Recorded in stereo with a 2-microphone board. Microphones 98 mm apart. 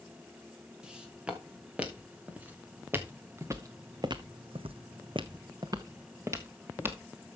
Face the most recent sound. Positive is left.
turn(degrees=-20)  # may be behind; listen again after turning